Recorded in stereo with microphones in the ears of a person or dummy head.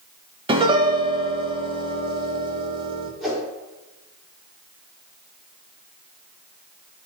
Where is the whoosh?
Centre (ahead or behind), 3 m.